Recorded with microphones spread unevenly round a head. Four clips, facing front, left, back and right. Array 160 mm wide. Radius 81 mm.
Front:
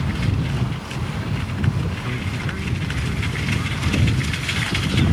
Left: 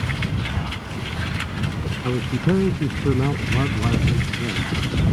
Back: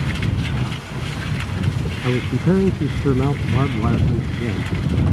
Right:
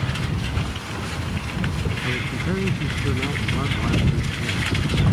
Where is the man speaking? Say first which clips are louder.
Left 8 dB, back 9 dB; 155° left; by 4.7 s 165° left.